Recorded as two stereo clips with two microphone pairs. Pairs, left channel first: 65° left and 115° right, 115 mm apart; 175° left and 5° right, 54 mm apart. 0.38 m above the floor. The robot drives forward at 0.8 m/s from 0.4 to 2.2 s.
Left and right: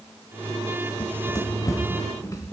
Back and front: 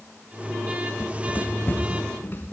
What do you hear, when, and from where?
1.0 s running footsteps: 115° left, 1.2 m; by 2.5 s 125° left, 3 m